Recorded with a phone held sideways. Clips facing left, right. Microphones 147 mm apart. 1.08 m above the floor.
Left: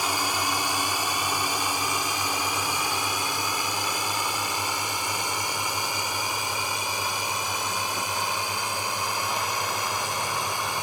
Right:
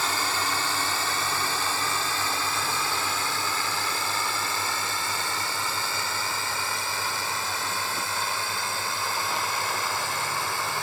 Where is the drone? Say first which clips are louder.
Left 1 dB; 15° left (ahead or behind).